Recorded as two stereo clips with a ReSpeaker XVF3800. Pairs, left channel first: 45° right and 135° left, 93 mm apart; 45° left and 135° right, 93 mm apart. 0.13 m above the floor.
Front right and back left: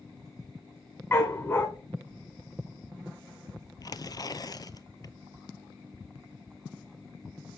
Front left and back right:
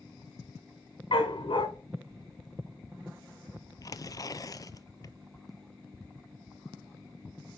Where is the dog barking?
20° left, 3 m.